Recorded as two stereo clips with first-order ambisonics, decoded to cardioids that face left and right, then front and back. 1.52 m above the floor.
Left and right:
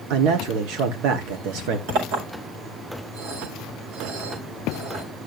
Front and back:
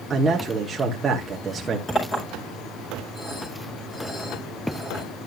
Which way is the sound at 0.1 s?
105° right.